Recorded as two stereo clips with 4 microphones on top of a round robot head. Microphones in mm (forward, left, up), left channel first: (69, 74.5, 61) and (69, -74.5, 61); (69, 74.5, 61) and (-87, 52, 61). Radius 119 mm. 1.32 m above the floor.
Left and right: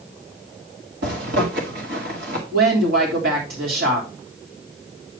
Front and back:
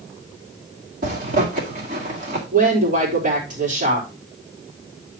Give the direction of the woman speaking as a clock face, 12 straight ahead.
4 o'clock.